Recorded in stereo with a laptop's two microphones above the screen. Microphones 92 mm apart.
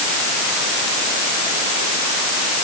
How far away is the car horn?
No car horn in this recording.